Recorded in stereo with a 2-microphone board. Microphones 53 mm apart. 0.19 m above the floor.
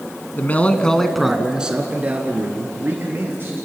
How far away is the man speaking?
About 1.5 m.